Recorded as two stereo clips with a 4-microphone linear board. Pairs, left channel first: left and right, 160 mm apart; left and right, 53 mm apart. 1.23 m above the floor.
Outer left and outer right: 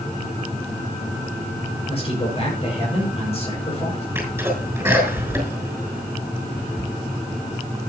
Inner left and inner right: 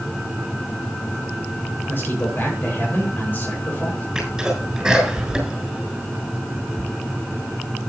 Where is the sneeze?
15° right (ahead or behind), 7 m.